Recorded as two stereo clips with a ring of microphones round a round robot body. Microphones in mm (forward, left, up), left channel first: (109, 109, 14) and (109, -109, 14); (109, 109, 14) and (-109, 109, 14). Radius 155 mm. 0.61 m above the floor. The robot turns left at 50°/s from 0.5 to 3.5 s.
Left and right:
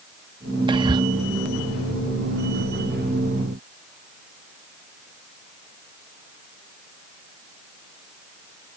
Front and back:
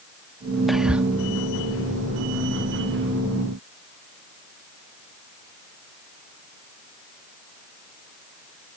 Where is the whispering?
90° right; by 1.1 s 110° right.